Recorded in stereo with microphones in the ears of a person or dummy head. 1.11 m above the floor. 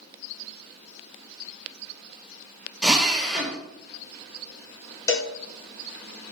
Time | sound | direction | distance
2.8 | a drill | centre (ahead or behind) | 1.9 m
5.1 | a cowbell | 20° left (ahead or behind) | 1.4 m